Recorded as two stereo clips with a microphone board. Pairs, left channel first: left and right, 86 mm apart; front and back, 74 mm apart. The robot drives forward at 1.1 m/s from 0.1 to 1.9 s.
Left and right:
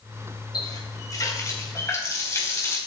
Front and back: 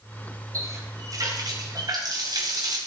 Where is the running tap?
135° left, 3 m; by 2.8 s 150° left, 4 m.